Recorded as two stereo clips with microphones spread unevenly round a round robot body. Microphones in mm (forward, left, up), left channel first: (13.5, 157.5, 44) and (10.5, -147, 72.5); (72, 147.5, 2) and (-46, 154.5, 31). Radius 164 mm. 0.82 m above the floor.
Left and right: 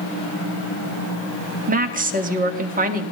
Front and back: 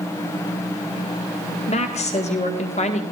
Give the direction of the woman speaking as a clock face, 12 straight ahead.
1 o'clock.